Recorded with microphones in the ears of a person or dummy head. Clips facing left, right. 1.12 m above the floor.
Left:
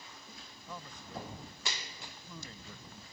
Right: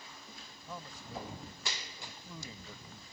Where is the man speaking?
5° right (ahead or behind).